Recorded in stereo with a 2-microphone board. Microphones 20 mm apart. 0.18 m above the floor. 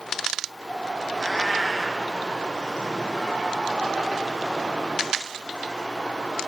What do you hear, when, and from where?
1.2 s a cat meowing: 10° left (ahead or behind), 1.3 m